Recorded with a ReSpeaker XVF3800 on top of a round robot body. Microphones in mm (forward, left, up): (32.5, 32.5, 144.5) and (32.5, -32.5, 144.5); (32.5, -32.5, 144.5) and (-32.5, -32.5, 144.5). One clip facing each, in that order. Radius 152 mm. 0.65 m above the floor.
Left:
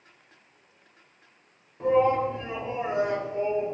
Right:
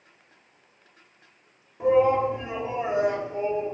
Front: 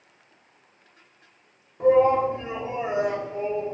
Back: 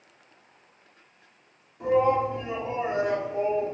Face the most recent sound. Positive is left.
turn(degrees=-170)